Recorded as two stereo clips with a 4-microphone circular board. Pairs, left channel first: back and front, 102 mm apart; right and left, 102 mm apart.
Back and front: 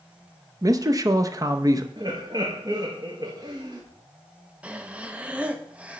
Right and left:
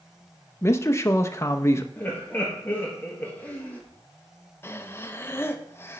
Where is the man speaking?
40° right, 0.7 m.